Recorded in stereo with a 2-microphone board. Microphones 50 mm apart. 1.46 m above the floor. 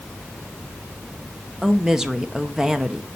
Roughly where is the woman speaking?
Centre.